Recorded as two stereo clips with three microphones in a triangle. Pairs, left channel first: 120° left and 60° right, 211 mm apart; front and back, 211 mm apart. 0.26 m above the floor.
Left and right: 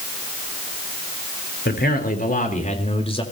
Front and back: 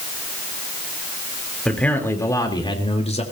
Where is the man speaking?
85° left, 4 m; by 3.2 s 55° left, 4 m.